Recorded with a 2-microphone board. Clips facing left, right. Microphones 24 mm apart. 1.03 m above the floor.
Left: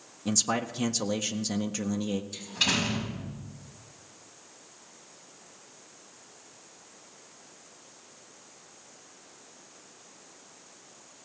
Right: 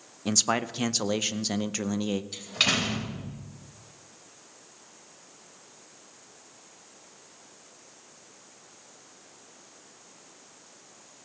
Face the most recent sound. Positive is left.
turn(degrees=-60)  # may be behind; listen again after turning